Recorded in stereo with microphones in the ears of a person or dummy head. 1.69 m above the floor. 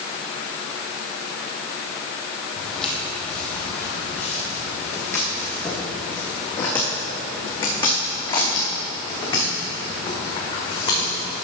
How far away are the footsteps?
About 3.5 m.